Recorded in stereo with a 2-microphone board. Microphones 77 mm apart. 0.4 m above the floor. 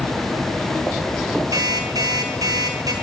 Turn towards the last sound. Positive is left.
turn(degrees=-55)  # may be behind; listen again after turning